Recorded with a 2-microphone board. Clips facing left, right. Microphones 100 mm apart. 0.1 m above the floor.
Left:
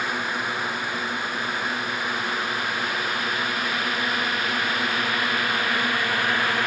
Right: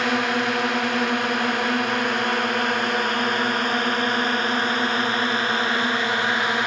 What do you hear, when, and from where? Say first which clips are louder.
0.0 s a drone: right 6 dB; 80° right; by 6.7 s 20° right (ahead or behind)